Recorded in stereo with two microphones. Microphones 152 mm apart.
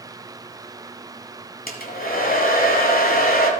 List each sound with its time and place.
1.7 s a hair dryer: 75° left (ahead or behind), 1.5 m